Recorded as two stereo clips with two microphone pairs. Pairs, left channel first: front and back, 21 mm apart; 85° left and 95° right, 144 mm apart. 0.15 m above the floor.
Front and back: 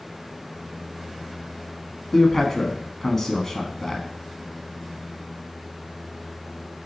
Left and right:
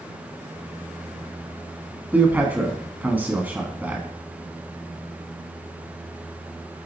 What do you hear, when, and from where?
2.1 s a man speaking: 35° right, 1.1 m